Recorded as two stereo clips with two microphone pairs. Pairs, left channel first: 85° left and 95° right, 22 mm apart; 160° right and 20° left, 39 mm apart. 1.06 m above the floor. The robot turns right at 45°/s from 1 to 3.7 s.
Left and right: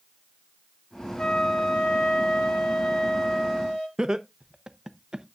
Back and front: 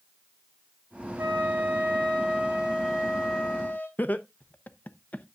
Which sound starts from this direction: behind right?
Laughter, at 4.0 s.